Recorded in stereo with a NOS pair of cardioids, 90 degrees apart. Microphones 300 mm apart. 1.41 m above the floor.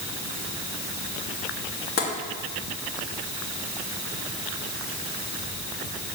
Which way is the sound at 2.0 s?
50° left.